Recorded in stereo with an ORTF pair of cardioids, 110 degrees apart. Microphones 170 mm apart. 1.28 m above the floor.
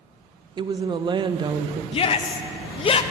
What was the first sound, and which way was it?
A woman speaking, 30° right.